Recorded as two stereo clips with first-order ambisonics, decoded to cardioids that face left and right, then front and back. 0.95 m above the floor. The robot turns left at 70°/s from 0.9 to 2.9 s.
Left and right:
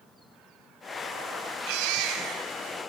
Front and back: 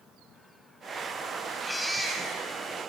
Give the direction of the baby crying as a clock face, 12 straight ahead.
3 o'clock.